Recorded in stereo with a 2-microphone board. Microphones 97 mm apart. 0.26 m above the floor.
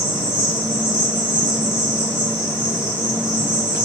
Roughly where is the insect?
Right.